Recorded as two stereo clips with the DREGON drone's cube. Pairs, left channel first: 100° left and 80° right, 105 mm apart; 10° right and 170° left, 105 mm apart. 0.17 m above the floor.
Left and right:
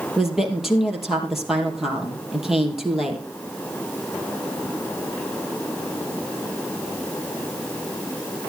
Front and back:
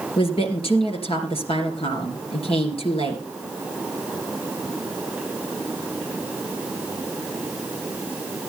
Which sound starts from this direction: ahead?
A woman speaking, at 0.2 s.